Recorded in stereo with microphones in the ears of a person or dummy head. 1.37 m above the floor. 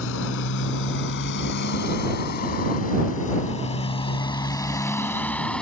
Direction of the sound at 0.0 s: 70° left (ahead or behind).